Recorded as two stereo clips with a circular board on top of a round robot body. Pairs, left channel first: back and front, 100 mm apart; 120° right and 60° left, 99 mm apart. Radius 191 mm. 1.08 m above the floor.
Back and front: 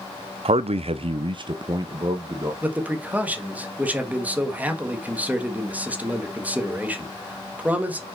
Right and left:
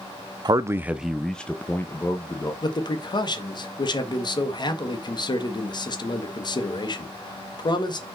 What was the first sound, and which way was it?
A man speaking, 15° left.